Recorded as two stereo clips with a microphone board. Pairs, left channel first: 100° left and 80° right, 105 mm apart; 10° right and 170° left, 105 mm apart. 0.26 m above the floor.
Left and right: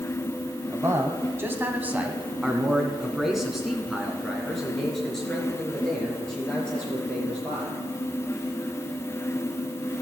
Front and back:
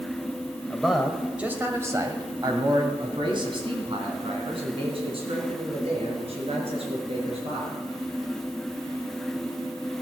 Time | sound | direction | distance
0.7 | a man speaking | 90° right | 1.4 m